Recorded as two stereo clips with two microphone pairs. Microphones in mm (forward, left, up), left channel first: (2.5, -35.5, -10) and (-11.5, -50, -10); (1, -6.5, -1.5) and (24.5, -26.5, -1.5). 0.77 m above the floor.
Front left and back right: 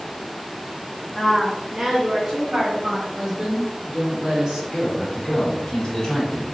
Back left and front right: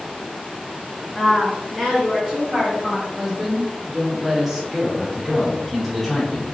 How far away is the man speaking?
About 1.1 m.